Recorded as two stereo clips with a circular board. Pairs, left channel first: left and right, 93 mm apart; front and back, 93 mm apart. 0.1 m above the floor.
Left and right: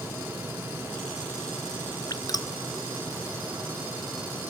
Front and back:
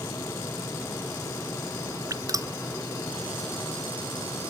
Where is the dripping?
130° left.